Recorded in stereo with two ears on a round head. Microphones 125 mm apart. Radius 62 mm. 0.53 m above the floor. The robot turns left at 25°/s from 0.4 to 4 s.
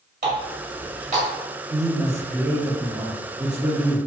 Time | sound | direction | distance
0.2 | a running tap | 75° right (ahead or behind) | 1.7 m
1.7 | a man speaking | 20° right (ahead or behind) | 0.7 m